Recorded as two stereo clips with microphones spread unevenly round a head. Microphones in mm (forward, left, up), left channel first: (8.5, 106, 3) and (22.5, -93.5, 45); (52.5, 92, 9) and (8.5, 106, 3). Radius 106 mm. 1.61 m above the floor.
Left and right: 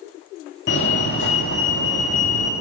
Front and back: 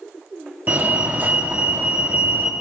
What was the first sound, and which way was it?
A fire alarm, 110° left.